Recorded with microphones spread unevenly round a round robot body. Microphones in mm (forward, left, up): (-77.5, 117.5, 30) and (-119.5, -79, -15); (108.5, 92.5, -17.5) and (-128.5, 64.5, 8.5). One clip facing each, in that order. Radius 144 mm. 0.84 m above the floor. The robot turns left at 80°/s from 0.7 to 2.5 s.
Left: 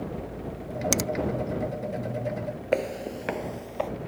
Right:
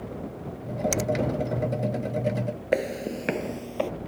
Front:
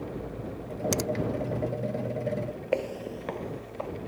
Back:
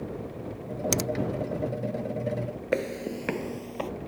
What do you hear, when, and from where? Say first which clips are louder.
0.9 s a finger snap: even, even; 125° left; by 1.1 s 110° left
2.7 s footsteps: right 1 dB, back 2 dB; 170° left; by 3.9 s 155° right